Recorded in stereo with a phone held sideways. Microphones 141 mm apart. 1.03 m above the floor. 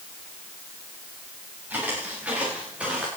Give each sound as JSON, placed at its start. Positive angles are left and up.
{"t": 1.7, "sound": "footsteps", "side_deg": -10, "distance_m": 9.0}